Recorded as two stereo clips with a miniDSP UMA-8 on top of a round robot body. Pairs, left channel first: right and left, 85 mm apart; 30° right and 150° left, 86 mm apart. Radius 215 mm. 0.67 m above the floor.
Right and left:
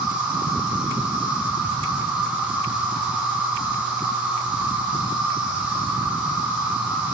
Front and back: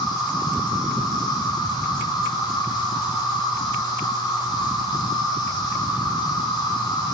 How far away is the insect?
About 6 m.